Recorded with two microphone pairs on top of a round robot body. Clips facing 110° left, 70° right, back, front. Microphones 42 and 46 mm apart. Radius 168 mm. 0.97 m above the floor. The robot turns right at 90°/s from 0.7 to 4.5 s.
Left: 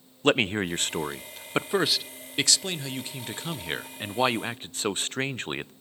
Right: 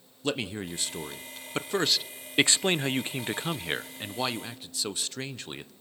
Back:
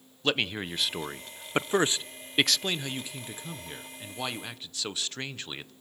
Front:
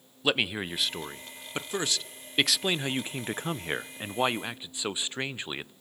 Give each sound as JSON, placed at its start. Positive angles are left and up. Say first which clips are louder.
{"t": 0.2, "sound": "a man speaking", "louder": "left 8 dB, front 1 dB", "azimuth_deg": 95, "distance_m": 0.6}